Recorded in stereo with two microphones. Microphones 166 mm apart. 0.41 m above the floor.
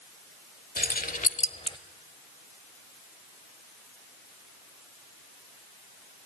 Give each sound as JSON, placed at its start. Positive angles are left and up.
{"t": 0.8, "sound": "keys jangling", "side_deg": 60, "distance_m": 1.0}